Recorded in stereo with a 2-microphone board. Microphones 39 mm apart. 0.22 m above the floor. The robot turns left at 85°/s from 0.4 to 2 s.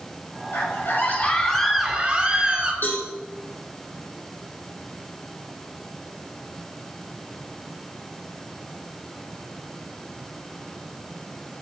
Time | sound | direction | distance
0.5 | a scream | 95° left | 6 m
2.8 | a cowbell | 65° left (ahead or behind) | 6.5 m